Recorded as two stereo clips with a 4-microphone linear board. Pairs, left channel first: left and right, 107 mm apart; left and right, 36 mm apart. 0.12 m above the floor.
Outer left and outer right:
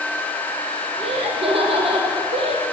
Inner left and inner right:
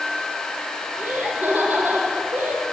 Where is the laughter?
60° right (ahead or behind), 4.5 m.